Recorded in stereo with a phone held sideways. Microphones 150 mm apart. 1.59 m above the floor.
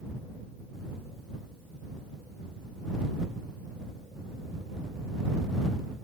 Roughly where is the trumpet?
No trumpet in this recording.